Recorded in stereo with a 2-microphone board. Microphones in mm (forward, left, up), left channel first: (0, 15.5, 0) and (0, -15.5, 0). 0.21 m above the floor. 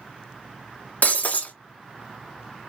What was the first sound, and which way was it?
Breaking glass, 60° left (ahead or behind).